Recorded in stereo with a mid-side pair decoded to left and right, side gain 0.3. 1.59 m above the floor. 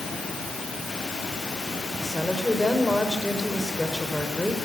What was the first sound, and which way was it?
A woman speaking, 10° left.